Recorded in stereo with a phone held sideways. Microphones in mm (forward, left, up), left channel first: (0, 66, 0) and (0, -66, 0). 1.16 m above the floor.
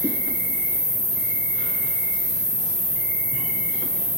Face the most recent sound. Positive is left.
turn(degrees=45)  # may be behind; listen again after turning